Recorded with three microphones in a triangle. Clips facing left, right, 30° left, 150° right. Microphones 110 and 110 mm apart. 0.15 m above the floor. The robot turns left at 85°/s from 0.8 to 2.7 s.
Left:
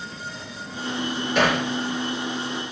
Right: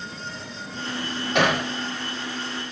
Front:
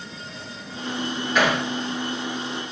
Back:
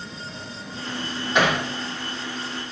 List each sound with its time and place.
1.4 s hammering: 80° right, 6 m; by 1.6 s 105° right, 6 m